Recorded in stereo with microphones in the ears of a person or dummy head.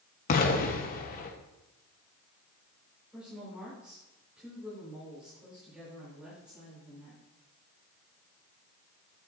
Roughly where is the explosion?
Left.